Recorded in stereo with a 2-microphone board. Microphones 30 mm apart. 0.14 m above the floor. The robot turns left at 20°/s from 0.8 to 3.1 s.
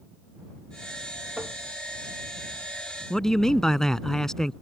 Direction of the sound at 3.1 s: 15° left (ahead or behind).